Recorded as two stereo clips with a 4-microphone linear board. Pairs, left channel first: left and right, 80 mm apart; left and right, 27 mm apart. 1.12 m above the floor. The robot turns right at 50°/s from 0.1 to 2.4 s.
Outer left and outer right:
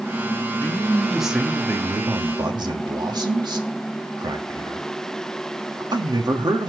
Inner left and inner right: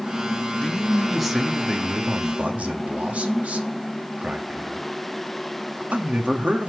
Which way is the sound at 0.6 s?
155° left.